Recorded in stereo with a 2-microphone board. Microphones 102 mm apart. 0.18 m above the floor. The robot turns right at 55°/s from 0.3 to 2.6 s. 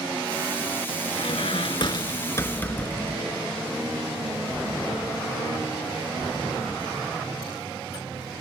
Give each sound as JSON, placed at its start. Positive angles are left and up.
{"t": 1.1, "sound": "a squeak", "azimuth_deg": 80}